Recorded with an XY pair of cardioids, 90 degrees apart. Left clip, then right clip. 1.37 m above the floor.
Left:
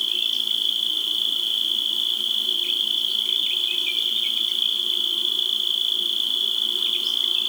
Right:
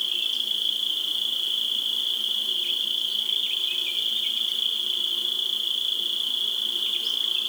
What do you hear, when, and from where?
0.0 s an insect: 40° left, 3.5 m